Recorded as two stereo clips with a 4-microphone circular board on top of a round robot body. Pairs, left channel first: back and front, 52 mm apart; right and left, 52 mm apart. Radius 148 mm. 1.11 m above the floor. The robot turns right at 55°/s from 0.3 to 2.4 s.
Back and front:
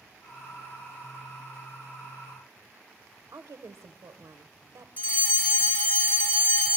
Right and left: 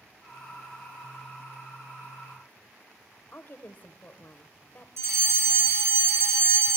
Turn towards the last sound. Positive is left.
turn(degrees=120)